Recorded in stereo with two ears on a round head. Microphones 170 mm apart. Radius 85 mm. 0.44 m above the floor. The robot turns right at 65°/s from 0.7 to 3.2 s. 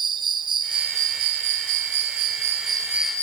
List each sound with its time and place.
0.0 s an insect: 155° right, 0.9 m; by 3.2 s 10° left, 0.9 m